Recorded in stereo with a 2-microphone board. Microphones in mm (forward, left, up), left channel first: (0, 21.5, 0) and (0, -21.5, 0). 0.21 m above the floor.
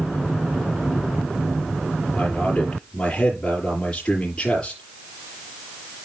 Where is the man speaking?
25° left (ahead or behind), 5.5 m.